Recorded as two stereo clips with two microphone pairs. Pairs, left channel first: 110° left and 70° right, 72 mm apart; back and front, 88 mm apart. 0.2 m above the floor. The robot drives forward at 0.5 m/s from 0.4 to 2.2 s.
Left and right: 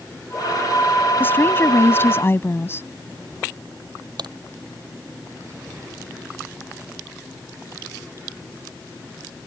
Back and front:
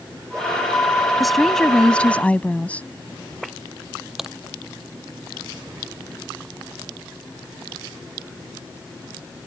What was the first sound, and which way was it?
A woman speaking, 90° left.